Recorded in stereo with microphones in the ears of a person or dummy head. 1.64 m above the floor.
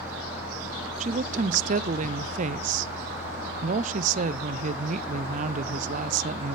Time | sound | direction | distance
1.0 | a woman speaking | 50° right (ahead or behind) | 0.6 m